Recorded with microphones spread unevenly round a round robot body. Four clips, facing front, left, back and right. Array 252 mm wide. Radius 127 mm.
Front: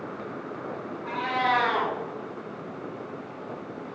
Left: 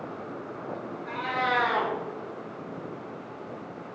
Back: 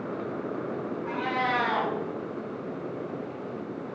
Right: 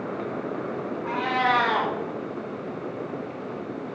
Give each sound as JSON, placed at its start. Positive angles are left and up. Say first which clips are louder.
{"t": 1.1, "sound": "a cat meowing", "louder": "right 5 dB, front 4 dB", "azimuth_deg": -55, "distance_m": 4.5}